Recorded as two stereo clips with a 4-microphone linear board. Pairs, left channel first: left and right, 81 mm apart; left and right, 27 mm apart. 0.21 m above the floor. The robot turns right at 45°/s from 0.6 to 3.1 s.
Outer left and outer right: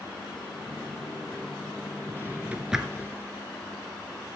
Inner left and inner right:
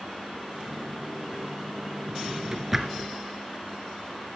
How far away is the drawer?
About 0.9 m.